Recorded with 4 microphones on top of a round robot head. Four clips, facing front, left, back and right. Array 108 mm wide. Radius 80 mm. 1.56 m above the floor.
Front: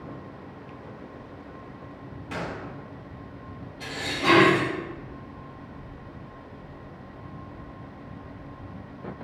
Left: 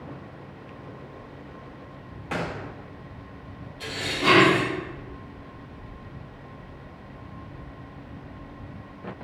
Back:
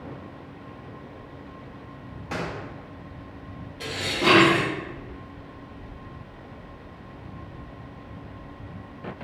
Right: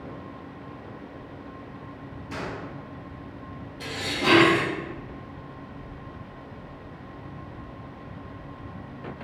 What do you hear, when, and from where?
2.3 s a gunshot: 120° left, 0.7 m
3.8 s dishes clattering: 170° right, 2.0 m